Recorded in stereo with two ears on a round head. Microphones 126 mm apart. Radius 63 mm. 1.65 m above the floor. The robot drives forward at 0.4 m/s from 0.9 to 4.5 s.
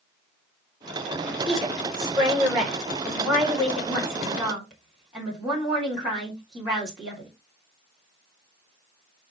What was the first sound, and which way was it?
A woman speaking, centre (ahead or behind).